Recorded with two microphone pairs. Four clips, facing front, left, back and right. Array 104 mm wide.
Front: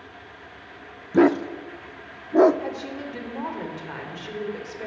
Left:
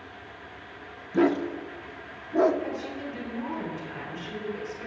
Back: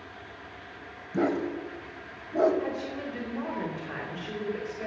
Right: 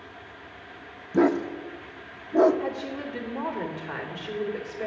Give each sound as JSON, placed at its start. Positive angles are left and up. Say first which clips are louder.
{"t": 1.1, "sound": "a dog barking", "louder": "right 1 dB, front 9 dB", "azimuth_deg": -10, "distance_m": 0.6}
{"t": 2.6, "sound": "a woman speaking", "louder": "right 2 dB, front 1 dB", "azimuth_deg": -55, "distance_m": 2.5}